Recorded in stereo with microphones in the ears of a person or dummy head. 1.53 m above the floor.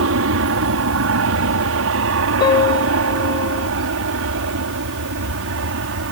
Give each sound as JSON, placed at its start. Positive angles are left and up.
{"t": 0.0, "sound": "an aircraft", "side_deg": -60}
{"t": 2.4, "sound": "a piano", "side_deg": 25}